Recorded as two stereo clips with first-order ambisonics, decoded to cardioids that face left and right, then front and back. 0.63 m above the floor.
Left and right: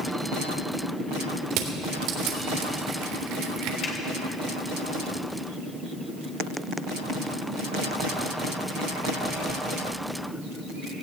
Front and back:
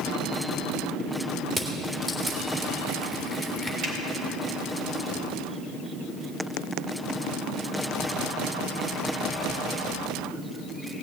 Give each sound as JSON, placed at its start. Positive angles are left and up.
{"t": 1.5, "sound": "crushing", "azimuth_deg": -100, "distance_m": 2.0}
{"t": 3.8, "sound": "a finger snap", "azimuth_deg": 140, "distance_m": 2.5}